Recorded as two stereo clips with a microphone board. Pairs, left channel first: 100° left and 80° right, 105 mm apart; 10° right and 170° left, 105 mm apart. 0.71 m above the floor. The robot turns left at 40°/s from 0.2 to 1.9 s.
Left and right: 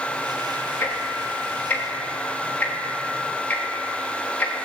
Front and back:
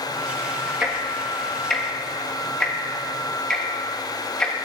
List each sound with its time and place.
0.8 s ticking: 100° left, 1.1 m; by 4.7 s 55° left, 1.1 m